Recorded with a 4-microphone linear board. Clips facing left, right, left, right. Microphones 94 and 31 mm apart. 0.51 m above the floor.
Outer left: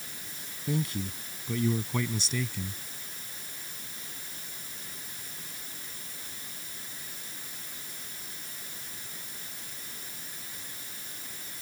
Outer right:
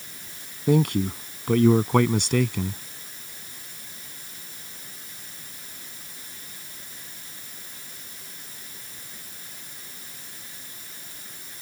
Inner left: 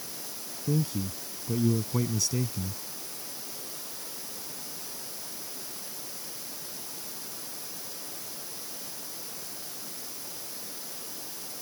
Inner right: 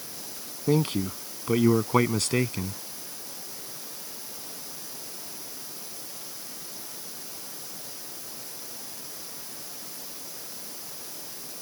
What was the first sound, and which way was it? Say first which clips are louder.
A man speaking: outer right 11 dB, inner right 5 dB; 65° right (ahead or behind).